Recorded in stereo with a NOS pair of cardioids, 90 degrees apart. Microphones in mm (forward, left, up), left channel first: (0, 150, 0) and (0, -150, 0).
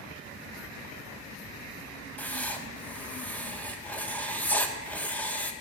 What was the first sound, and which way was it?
Writing, 5° left.